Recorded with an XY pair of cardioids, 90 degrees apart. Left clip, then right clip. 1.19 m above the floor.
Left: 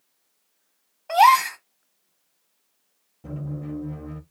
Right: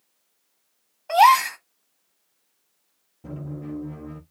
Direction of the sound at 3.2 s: Straight ahead.